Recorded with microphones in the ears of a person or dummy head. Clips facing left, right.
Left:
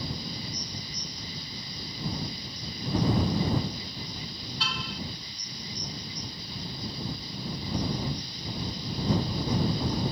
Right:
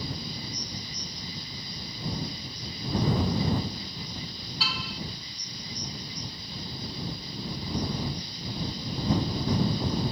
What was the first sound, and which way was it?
A car horn, centre (ahead or behind).